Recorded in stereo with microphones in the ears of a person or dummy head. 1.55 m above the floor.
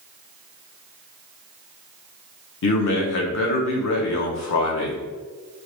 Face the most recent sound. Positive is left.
turn(degrees=60)  # may be behind; listen again after turning